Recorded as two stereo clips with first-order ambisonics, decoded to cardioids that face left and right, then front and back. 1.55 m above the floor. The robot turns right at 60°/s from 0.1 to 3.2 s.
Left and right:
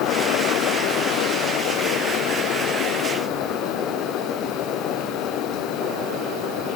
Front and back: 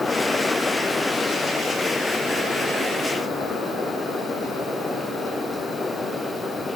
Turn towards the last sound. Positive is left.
No sound to turn to.